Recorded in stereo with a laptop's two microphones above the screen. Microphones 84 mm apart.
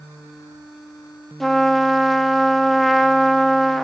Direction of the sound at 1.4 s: Centre (ahead or behind).